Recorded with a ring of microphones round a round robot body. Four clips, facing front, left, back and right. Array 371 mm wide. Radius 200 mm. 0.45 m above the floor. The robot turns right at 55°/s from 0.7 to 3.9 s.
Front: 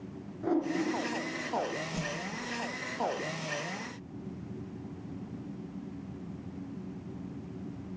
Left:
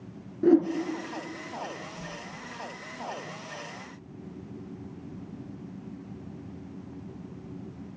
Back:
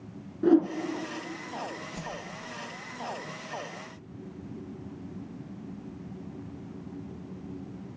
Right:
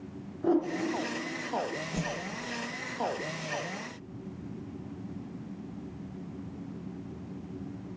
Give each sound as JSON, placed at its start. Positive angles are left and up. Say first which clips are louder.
{"t": 0.4, "sound": "a whoosh", "louder": "left 6 dB, back 9 dB", "azimuth_deg": 125, "distance_m": 1.6}
{"t": 1.9, "sound": "a whoosh", "louder": "right 6 dB, front 2 dB", "azimuth_deg": -85, "distance_m": 1.7}